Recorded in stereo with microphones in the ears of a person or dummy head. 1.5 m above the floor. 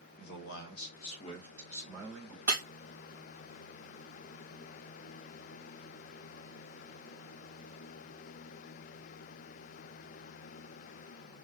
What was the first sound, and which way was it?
A man speaking, 70° left (ahead or behind).